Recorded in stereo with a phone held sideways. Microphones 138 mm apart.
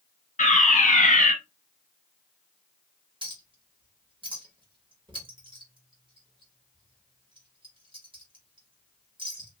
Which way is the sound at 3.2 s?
35° right (ahead or behind).